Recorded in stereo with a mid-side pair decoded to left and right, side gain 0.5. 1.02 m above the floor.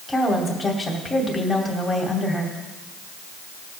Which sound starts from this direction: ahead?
A woman speaking, at 0.1 s.